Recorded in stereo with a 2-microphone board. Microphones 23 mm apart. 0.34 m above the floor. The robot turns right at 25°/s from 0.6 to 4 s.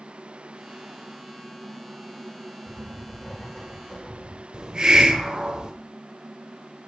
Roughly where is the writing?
Ahead.